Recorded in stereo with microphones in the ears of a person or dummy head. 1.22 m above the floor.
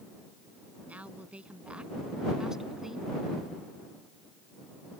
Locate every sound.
0.9 s a woman speaking: 10° right (ahead or behind); by 3.1 s 5° right (ahead or behind)